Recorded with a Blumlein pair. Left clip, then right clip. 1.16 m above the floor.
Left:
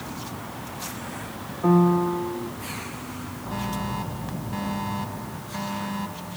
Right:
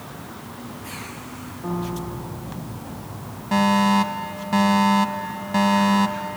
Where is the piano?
25° left.